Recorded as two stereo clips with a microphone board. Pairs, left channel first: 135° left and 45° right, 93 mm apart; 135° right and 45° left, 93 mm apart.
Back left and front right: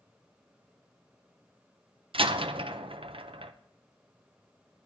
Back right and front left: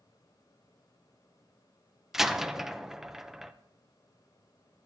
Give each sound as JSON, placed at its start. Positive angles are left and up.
{"t": 2.1, "sound": "a door slam", "azimuth_deg": -40, "distance_m": 0.5}